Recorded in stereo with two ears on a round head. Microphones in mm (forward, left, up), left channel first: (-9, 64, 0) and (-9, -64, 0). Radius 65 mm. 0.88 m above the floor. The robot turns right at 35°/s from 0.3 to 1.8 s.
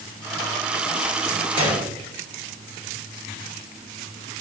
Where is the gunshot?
45° right (ahead or behind), 4.5 m; by 1.9 s 50° right (ahead or behind), 4.5 m.